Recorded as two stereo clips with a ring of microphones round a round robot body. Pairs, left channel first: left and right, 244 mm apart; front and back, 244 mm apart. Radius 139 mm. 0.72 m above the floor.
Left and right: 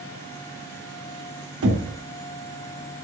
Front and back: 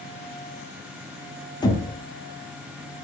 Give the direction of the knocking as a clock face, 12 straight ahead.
2 o'clock.